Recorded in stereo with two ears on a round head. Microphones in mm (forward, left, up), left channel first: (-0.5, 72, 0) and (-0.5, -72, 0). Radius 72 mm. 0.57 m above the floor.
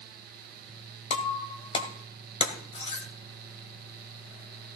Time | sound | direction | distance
1.1 | breaking glass | 35° left (ahead or behind) | 2 m